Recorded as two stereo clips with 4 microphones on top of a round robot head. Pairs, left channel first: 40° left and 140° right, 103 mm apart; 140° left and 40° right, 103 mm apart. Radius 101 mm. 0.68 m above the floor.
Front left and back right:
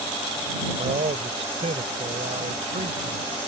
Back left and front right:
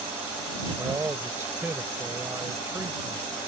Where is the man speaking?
110° right.